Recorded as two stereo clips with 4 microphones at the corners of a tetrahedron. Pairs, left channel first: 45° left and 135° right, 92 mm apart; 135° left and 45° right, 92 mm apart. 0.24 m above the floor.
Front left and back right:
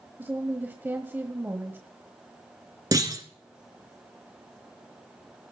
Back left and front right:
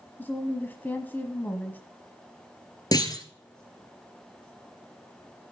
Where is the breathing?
No breathing in this recording.